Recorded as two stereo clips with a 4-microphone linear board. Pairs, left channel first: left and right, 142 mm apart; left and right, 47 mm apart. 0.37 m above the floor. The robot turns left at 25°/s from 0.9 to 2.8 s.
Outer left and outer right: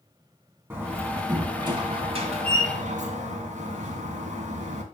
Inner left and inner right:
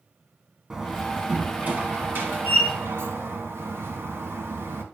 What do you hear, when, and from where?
0.7 s a door slam: 15° right, 2 m; by 4.8 s 65° right, 2 m